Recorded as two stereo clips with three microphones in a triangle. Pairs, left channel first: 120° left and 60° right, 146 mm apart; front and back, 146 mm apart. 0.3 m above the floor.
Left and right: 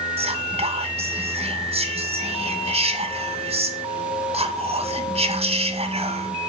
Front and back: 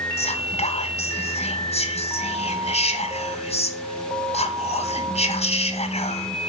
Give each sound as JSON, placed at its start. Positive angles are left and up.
{"t": 0.2, "sound": "whispering", "azimuth_deg": -30, "distance_m": 2.0}